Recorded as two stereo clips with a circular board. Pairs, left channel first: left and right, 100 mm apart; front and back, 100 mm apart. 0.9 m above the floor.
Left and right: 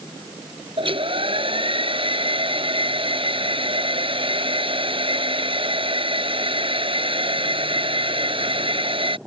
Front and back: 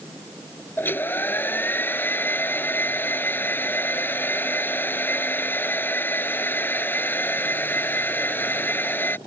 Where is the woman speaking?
I don't hear a woman speaking.